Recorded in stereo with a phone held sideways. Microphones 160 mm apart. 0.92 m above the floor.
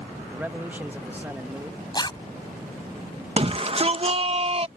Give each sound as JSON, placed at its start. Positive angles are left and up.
{"t": 0.3, "sound": "a man speaking", "side_deg": -10}
{"t": 1.9, "sound": "a zipper", "side_deg": 25}
{"t": 3.4, "sound": "a shout", "side_deg": -35}